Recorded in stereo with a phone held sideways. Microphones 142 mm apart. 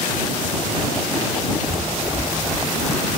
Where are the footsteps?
20° right (ahead or behind); by 3.0 s 10° right (ahead or behind).